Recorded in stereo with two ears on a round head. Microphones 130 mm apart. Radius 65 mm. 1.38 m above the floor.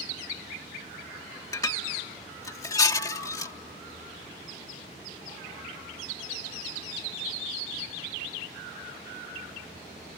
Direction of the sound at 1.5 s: 25° left (ahead or behind).